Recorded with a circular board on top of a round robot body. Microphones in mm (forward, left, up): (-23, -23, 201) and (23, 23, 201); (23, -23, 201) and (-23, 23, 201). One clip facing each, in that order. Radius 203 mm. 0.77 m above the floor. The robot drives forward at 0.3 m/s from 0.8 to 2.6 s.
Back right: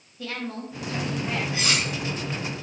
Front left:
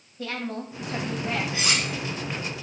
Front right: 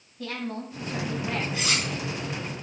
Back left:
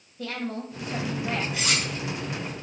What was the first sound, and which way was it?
A woman speaking, 105° left.